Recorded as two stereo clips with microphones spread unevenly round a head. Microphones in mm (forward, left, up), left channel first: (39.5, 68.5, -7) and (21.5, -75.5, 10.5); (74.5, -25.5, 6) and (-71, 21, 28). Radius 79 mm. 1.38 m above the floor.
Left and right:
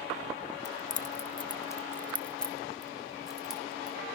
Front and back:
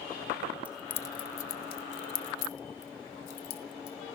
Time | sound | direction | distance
0.7 | keys jangling | 90° left | 0.8 m